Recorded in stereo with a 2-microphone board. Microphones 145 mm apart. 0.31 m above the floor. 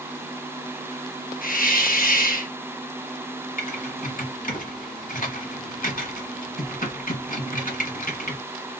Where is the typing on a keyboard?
75° left (ahead or behind), 1.7 m.